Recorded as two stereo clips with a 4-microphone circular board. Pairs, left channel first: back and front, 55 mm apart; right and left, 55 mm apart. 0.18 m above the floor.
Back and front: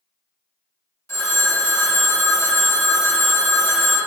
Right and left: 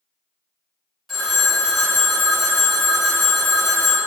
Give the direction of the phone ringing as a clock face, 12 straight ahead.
6 o'clock.